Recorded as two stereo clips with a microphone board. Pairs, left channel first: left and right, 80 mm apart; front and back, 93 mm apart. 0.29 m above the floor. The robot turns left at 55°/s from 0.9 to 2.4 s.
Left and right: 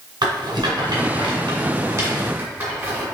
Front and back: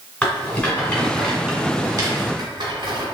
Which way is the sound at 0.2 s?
80° right.